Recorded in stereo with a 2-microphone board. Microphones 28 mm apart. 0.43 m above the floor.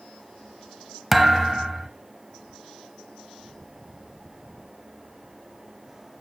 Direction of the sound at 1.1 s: 10° right (ahead or behind).